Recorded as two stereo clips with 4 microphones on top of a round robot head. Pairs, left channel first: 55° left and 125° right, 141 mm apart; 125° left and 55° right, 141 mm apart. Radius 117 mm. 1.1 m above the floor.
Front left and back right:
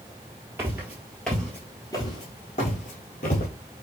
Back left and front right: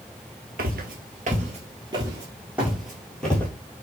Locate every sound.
0.6 s footsteps: 55° right, 1.5 m; by 3.5 s 45° left, 1.7 m